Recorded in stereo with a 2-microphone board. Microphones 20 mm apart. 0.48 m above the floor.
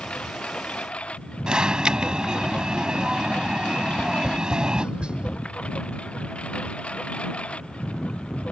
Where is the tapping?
60° right (ahead or behind).